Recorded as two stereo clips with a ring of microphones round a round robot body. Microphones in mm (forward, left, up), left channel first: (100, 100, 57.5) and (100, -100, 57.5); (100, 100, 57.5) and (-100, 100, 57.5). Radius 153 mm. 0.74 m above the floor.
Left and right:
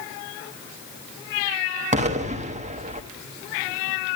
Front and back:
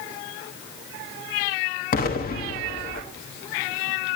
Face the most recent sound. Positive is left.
turn(degrees=-40)